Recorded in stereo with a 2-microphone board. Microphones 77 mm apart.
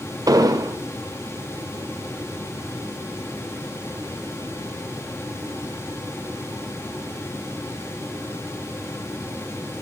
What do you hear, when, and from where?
0.3 s an explosion: 50° right (ahead or behind), 0.6 m